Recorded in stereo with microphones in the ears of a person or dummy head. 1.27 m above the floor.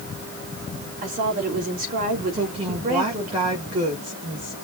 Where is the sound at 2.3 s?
25° right (ahead or behind), 1.9 m.